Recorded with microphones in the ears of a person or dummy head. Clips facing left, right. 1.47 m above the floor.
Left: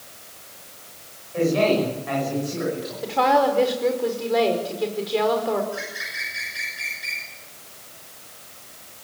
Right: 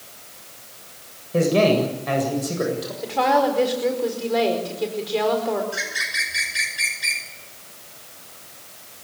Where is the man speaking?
55° right (ahead or behind), 7.5 m.